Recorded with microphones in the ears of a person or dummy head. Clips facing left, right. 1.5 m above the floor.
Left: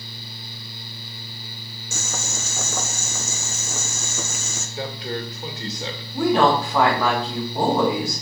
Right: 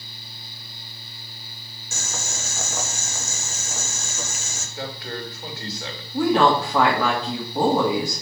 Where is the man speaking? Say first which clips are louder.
Left 3 dB; 20° left (ahead or behind), 1.8 m.